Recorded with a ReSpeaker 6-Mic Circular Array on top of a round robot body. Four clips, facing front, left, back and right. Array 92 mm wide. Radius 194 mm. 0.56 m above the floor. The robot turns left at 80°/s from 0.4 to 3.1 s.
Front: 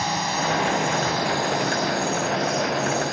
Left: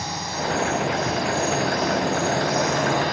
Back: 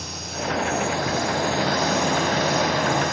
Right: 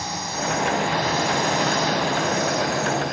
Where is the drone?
Straight ahead; by 3.1 s 135° left.